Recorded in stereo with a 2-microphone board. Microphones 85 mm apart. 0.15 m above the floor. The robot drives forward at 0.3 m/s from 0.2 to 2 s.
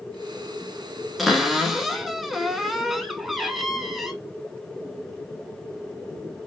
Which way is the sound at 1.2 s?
Centre (ahead or behind).